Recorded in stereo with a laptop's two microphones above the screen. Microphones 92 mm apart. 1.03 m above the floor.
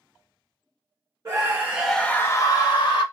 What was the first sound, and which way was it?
A scream, 35° right (ahead or behind).